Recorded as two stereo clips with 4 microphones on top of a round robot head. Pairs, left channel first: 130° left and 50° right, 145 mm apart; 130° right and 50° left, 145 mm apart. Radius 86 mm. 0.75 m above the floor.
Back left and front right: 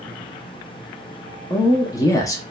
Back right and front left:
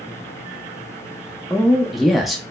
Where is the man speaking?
135° left, 0.5 m.